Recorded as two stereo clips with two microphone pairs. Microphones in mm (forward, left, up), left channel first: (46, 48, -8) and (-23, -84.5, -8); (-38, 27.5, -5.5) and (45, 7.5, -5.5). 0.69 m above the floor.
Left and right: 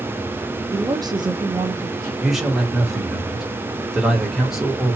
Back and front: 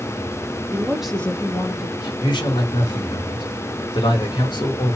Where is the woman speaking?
60° right, 0.8 m; by 2.1 s straight behind, 1.2 m.